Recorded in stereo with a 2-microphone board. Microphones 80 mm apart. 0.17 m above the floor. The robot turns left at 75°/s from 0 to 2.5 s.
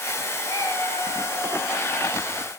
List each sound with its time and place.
0.5 s a cat meowing: 50° left, 6.5 m; by 1.7 s 45° right, 6.5 m